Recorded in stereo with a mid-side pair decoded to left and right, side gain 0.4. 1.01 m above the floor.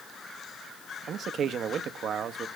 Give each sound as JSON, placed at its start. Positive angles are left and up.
{"t": 1.1, "sound": "a man speaking", "azimuth_deg": -65, "distance_m": 0.8}